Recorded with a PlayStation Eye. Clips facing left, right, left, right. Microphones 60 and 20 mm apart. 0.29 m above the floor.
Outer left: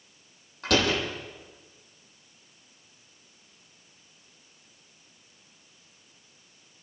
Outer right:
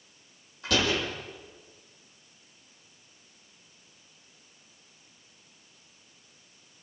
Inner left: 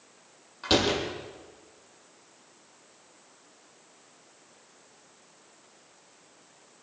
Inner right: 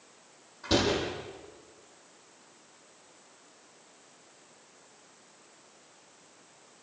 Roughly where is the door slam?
Left.